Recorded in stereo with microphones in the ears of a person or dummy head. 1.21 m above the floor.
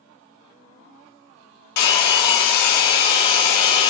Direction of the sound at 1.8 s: 55° left (ahead or behind).